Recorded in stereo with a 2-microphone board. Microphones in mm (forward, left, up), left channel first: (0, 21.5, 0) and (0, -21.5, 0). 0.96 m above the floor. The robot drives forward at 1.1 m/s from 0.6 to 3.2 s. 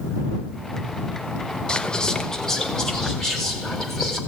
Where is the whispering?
20° left (ahead or behind), 0.9 m; by 4.2 s 10° left (ahead or behind), 2.5 m.